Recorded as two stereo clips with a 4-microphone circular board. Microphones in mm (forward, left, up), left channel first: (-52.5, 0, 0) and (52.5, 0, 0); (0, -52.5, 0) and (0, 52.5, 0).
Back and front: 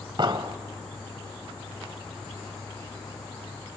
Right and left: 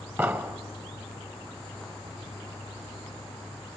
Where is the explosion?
30° left, 0.8 m.